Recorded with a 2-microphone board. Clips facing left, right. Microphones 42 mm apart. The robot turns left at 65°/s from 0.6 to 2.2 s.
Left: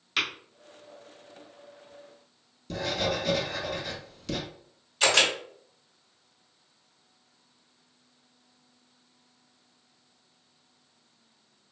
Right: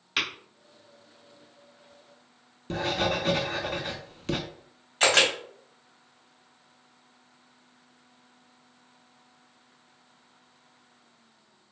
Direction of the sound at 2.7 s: 40° right (ahead or behind).